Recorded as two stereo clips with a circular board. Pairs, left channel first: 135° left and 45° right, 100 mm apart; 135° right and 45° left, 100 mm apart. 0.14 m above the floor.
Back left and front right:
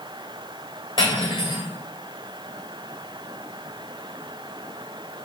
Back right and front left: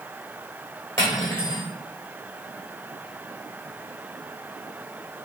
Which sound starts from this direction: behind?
Cutlery clinking, at 1.0 s.